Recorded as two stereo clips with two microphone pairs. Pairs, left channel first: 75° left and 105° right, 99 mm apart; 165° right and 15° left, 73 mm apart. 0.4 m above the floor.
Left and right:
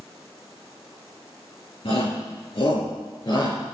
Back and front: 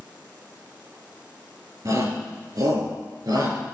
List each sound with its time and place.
1.9 s a shout: 50° left, 5.5 m; by 3.6 s 35° left, 6 m